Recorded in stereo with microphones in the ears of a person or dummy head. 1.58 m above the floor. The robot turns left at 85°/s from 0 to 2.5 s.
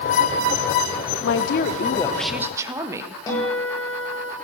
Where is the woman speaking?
90° left, 1.2 m; by 3.2 s 20° right, 1.2 m.